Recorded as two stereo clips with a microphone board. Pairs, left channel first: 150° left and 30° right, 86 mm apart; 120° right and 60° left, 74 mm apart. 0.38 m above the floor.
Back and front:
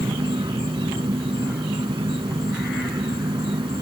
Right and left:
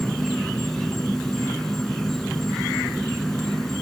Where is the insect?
35° right.